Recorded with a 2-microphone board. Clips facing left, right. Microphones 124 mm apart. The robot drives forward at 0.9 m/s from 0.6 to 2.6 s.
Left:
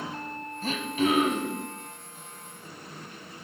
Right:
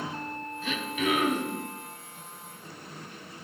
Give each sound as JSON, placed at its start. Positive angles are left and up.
{"t": 0.6, "sound": "throat clearing", "side_deg": 40, "distance_m": 1.0}